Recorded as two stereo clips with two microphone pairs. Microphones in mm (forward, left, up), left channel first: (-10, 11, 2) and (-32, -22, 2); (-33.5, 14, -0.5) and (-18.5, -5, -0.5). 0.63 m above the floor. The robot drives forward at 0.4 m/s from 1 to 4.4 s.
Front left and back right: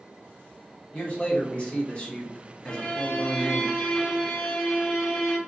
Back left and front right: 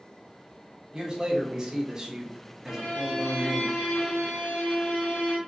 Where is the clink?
No clink in this recording.